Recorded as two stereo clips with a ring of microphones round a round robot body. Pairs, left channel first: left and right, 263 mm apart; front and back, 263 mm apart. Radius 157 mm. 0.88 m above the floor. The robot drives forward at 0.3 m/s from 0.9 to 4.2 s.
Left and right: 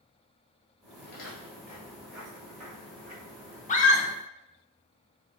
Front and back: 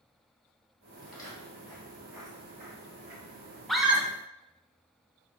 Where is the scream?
85° left, 0.6 m; by 4.1 s 110° left, 0.7 m.